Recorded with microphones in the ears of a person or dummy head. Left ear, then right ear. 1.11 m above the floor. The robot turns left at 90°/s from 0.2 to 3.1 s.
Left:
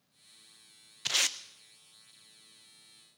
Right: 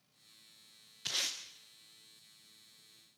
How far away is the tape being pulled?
About 0.6 m.